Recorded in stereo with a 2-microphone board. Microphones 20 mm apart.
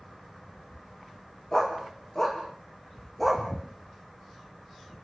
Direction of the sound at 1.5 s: 30° left (ahead or behind).